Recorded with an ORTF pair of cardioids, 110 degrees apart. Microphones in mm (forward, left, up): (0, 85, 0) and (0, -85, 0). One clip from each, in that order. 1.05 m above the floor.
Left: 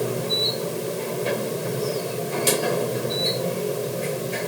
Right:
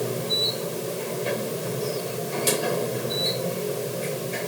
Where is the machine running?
15° left.